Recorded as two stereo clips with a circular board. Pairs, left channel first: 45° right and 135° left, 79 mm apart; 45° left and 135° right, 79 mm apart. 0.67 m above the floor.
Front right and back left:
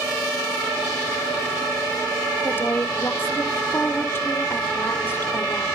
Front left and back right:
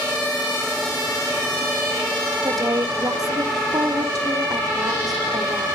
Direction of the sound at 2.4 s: 100° right.